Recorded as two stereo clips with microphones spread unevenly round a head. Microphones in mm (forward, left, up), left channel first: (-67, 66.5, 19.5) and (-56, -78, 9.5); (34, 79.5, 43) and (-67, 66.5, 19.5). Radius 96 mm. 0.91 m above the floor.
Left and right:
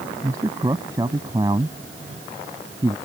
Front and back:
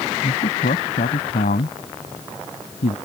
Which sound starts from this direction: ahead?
A man speaking, at 0.2 s.